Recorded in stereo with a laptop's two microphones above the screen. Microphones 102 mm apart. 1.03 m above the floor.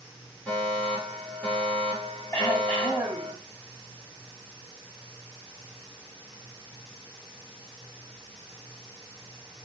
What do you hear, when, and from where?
0.5 s a fire alarm: 15° left (ahead or behind), 5.5 m
2.3 s throat clearing: 20° left (ahead or behind), 6.5 m